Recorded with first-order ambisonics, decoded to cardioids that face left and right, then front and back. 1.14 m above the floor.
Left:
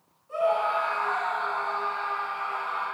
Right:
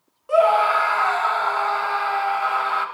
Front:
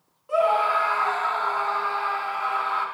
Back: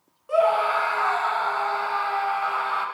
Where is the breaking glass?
I don't hear breaking glass.